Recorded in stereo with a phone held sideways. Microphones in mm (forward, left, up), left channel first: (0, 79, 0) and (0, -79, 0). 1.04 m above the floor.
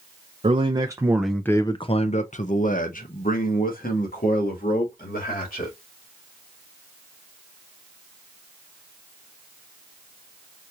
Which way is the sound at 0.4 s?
35° right (ahead or behind).